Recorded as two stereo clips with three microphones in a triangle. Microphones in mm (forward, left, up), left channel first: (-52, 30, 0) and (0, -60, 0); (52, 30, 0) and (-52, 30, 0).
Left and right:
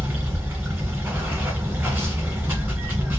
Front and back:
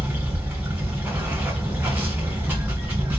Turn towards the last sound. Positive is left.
turn(degrees=-120)